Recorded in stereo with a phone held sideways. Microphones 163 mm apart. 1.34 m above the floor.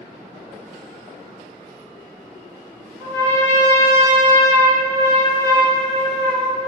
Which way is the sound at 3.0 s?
10° left (ahead or behind).